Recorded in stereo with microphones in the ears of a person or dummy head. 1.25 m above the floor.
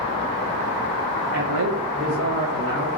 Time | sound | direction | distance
1.3 | a man speaking | 50° right (ahead or behind) | 0.6 m